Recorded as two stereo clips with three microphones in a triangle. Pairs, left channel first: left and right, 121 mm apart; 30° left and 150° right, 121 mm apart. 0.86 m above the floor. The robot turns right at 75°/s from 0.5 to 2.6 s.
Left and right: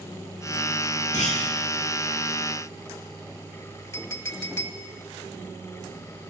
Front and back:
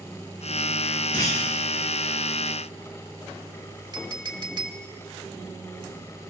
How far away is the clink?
About 1.3 m.